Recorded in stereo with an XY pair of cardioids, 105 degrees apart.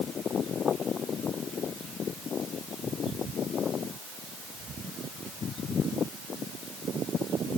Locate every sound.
Only background noise.